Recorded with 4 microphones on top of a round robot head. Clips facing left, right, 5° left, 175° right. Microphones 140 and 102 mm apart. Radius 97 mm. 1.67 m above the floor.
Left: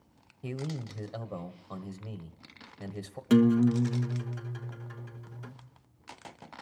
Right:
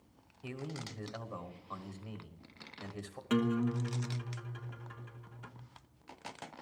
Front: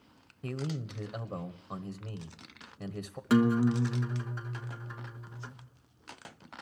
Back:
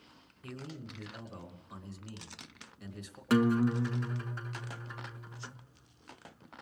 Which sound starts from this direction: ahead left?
A man speaking, at 0.4 s.